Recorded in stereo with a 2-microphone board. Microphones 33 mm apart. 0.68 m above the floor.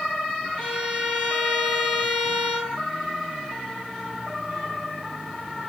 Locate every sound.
0.6 s a violin: 15° left (ahead or behind), 2.5 m